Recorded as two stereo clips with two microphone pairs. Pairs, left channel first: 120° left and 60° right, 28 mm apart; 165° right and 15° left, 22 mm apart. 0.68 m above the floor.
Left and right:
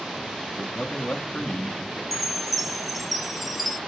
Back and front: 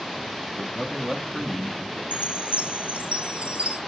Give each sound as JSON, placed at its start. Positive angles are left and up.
{"t": 0.6, "sound": "a man speaking", "azimuth_deg": 90, "distance_m": 0.9}
{"t": 2.1, "sound": "a chime", "azimuth_deg": 30, "distance_m": 0.6}